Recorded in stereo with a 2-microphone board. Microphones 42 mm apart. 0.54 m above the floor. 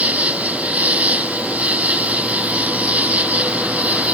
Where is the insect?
35° right (ahead or behind).